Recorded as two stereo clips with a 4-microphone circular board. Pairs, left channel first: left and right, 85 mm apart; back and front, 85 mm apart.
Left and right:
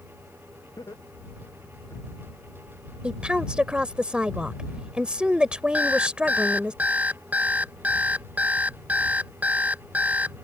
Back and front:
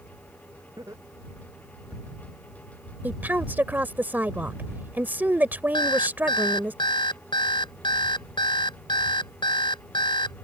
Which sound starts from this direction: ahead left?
Laughter, at 0.8 s.